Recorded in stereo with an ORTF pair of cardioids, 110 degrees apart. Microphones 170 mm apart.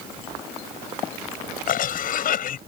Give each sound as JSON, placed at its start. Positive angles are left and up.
{"t": 1.7, "sound": "a cough", "azimuth_deg": 55}